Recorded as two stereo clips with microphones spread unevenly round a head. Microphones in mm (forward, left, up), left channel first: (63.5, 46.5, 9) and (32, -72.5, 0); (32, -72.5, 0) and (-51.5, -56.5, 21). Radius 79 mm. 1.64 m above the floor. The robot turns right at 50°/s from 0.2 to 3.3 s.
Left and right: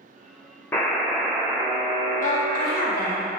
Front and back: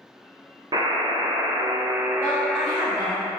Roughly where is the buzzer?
Behind left.